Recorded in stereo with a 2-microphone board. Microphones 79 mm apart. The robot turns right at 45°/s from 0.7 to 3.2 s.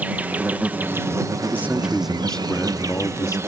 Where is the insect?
155° right; by 3.5 s 45° right.